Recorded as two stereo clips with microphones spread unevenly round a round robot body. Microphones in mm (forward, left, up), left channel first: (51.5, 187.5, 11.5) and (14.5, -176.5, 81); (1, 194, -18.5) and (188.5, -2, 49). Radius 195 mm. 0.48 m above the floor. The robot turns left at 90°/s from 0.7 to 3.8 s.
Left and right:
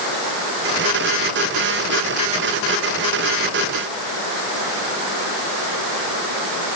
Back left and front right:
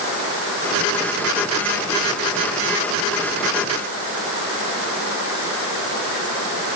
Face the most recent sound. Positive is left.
No sound to turn to.